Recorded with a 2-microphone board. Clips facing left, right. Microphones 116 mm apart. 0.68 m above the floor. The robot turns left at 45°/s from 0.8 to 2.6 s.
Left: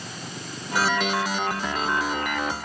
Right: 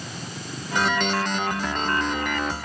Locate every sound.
Only background noise.